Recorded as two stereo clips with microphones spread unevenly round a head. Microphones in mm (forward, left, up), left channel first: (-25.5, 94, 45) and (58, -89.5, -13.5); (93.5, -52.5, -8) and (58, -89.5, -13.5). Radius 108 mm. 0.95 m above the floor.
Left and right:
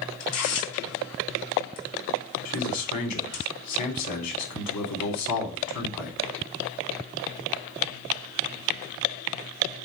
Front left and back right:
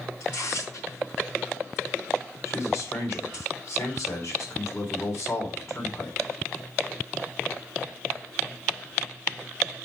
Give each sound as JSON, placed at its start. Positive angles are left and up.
{"t": 0.2, "sound": "tearing paper", "azimuth_deg": 120, "distance_m": 3.0}
{"t": 2.5, "sound": "a man speaking", "azimuth_deg": 125, "distance_m": 3.5}